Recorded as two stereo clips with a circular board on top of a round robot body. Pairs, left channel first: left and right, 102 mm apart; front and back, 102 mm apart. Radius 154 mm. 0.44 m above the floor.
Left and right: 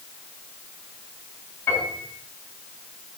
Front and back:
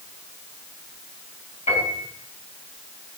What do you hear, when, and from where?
1.7 s a piano: 20° left, 9 m